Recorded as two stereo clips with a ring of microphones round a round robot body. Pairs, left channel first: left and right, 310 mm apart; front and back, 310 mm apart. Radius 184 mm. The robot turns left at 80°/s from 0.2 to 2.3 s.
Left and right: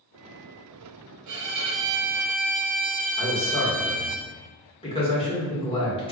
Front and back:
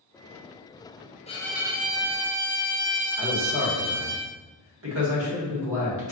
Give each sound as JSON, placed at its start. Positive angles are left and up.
{"t": 1.3, "sound": "a violin", "azimuth_deg": -70, "distance_m": 0.6}
{"t": 3.2, "sound": "a man speaking", "azimuth_deg": 155, "distance_m": 1.7}